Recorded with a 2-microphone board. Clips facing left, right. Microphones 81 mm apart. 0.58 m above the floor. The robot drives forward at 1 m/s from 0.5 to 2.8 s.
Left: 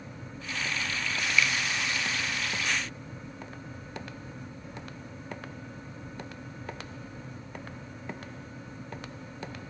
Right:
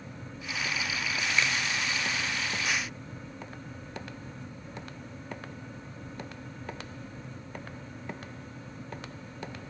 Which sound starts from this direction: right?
A finger snap, at 1.4 s.